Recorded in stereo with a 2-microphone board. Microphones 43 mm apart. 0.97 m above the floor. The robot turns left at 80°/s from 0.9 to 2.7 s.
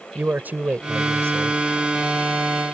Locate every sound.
0.1 s a man speaking: 45° right; by 1.6 s 100° right